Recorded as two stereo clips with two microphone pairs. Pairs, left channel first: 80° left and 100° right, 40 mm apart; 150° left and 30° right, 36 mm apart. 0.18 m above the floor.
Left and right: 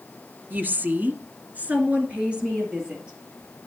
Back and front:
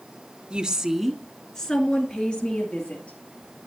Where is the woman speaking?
85° right, 1.6 m; by 3.2 s 170° right, 3.5 m.